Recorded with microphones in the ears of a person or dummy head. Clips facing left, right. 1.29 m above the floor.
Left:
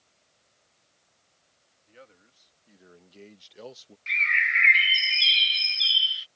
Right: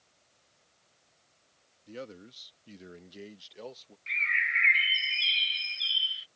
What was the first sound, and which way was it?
A man speaking, 60° right (ahead or behind).